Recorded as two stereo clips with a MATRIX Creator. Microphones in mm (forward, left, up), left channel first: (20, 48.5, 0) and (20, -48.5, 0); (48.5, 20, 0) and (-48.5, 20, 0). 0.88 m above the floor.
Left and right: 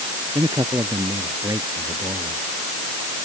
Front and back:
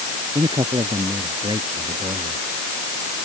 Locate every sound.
0.3 s a man speaking: 145° right